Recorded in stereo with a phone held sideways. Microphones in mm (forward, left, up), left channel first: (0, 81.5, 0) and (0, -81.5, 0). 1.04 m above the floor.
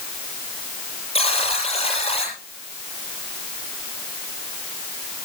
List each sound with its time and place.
1.1 s a buzzer: 40° left (ahead or behind), 8 m